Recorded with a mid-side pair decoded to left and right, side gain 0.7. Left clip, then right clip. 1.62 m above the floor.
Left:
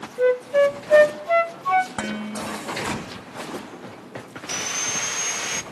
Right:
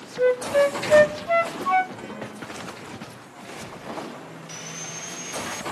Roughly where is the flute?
Ahead.